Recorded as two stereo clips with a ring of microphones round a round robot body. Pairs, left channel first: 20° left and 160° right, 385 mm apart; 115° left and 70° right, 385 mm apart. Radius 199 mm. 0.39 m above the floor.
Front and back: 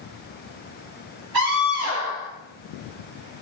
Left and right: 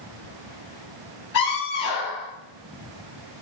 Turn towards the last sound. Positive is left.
turn(degrees=165)